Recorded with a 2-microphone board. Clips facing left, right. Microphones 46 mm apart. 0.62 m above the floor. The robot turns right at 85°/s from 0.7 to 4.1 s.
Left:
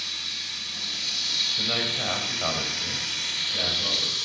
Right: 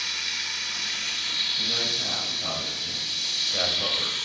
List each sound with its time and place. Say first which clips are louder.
0.0 s running water: right 4 dB; 75° right, 0.9 m; by 4.3 s 150° right, 0.9 m
1.6 s a man speaking: left 1 dB; 45° left, 2.5 m; by 4.2 s 100° right, 2.5 m